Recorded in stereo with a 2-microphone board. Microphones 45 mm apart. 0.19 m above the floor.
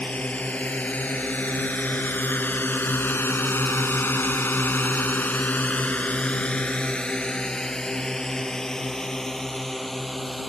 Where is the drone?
25° left (ahead or behind); by 10.5 s 5° left (ahead or behind).